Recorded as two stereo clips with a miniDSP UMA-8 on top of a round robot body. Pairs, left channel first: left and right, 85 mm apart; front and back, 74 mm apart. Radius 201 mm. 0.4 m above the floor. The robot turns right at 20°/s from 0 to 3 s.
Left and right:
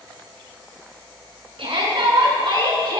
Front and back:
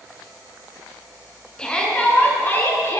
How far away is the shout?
About 7.5 m.